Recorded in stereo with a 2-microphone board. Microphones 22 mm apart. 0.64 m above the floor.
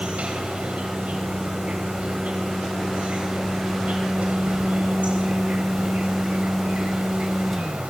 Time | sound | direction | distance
0.0 | an insect | 70° right (ahead or behind) | 5 m